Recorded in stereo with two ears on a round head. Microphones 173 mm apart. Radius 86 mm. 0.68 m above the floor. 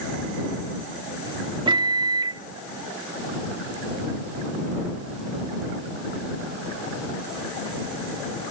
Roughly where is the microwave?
Right.